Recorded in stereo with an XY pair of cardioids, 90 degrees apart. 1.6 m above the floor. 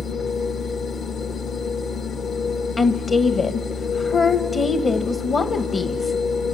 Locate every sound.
0.0 s a machine running: 70° left, 1.8 m
2.8 s a woman speaking: 50° left, 1.4 m